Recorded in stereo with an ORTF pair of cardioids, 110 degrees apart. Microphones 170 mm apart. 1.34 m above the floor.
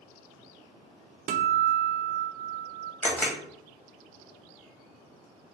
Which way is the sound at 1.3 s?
55° right.